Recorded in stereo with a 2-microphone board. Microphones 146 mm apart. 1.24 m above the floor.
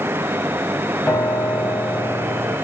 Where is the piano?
10° left (ahead or behind), 1.7 m.